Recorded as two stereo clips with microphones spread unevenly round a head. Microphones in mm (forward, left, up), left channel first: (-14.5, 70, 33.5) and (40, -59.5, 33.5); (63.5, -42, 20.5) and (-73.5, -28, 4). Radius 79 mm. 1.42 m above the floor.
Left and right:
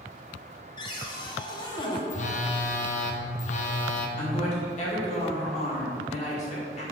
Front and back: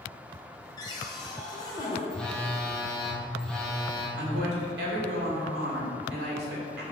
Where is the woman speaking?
160° left, 1.8 m.